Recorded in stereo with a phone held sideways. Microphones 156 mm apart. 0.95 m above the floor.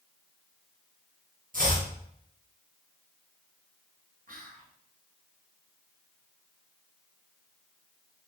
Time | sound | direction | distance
1.5 | chopping | 60° right (ahead or behind) | 1.0 m
4.3 | whispering | 60° right (ahead or behind) | 0.9 m